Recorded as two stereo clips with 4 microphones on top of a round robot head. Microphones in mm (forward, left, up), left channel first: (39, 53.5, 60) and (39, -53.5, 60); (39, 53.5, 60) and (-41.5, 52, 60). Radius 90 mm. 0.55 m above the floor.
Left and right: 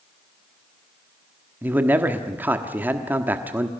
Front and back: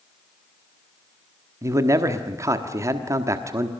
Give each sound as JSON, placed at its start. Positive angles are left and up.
{"t": 1.6, "sound": "a man speaking", "azimuth_deg": -155, "distance_m": 1.2}